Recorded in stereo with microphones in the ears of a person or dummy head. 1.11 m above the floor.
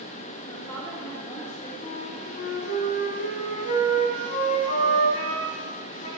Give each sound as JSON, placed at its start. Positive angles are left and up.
{"t": 0.5, "sound": "a woman speaking", "side_deg": 20, "distance_m": 3.5}
{"t": 1.8, "sound": "a flute", "side_deg": 45, "distance_m": 4.0}